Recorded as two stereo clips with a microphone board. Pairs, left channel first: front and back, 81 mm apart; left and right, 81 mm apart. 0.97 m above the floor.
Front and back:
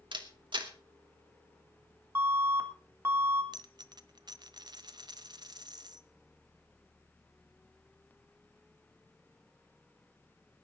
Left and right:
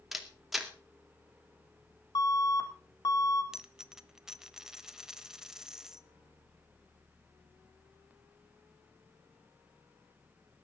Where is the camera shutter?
175° right, 2.5 m.